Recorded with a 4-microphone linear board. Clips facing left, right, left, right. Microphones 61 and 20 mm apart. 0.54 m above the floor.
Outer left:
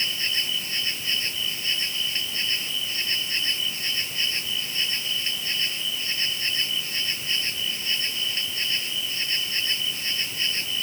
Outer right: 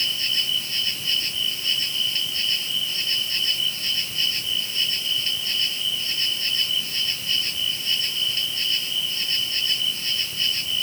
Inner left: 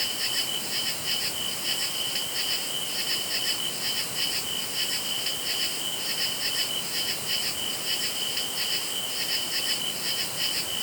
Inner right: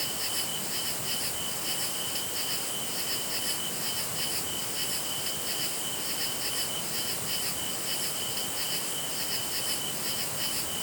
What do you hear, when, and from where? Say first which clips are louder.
0.0 s an insect: outer right 1 dB, inner left 5 dB; 30° left (ahead or behind)